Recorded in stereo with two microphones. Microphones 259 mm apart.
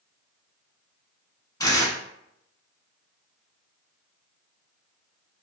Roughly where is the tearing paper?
Centre.